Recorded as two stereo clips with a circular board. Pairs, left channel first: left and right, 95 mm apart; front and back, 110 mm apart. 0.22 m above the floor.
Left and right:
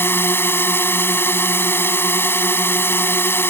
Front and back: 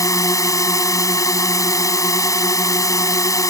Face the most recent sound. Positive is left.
turn(degrees=40)